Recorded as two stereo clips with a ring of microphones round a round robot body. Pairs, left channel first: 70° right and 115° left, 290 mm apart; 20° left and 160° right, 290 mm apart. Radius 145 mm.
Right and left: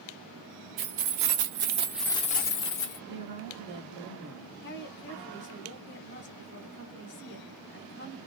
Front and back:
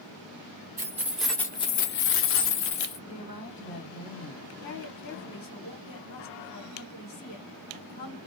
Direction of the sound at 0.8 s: 125° left.